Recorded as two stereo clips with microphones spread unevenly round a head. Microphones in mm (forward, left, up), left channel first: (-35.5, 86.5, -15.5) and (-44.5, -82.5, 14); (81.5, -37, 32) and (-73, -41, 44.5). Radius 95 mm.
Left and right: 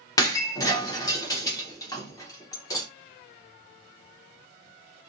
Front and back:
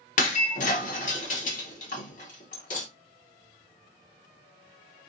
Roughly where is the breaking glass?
Ahead.